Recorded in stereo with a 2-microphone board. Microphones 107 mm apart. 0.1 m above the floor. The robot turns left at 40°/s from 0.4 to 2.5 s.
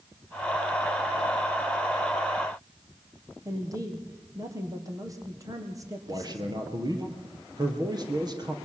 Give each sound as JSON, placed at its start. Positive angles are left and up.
{"t": 3.5, "sound": "a man speaking", "side_deg": -30, "distance_m": 4.0}
{"t": 6.1, "sound": "a man speaking", "side_deg": -40, "distance_m": 3.0}